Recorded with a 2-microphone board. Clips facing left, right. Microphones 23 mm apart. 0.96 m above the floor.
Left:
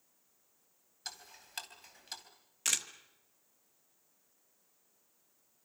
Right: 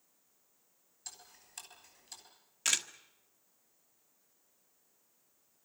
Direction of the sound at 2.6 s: 10° right (ahead or behind).